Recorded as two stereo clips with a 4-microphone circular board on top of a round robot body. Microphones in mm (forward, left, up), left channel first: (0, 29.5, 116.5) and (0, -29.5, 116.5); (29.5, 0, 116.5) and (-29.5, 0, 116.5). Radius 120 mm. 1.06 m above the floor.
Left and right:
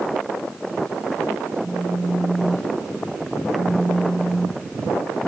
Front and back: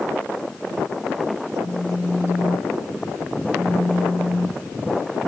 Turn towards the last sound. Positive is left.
turn(degrees=-65)